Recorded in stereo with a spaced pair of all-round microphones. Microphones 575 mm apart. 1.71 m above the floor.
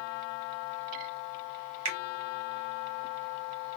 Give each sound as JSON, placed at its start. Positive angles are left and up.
{"t": 1.9, "sound": "a finger snap", "side_deg": -40, "distance_m": 1.2}